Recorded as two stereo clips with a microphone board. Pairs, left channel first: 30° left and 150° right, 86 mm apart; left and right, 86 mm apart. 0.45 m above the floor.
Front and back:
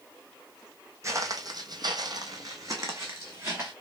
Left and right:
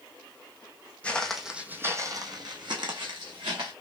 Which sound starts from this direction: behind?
Footsteps, at 1.0 s.